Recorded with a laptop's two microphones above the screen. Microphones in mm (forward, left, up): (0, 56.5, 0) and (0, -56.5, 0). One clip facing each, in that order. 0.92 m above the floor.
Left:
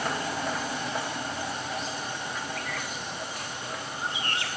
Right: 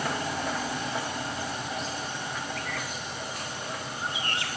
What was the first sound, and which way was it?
Only background noise.